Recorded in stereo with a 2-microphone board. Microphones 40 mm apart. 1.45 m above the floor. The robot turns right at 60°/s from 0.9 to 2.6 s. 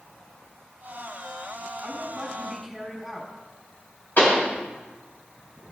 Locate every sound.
1.8 s a woman speaking: 35° right, 3.5 m; by 3.3 s 10° left, 3.5 m
4.2 s a pop: 55° left (ahead or behind), 4.5 m